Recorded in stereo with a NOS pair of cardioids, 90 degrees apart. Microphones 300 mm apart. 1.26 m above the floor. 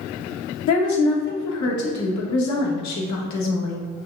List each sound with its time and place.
0.7 s a woman speaking: 65° left, 1.4 m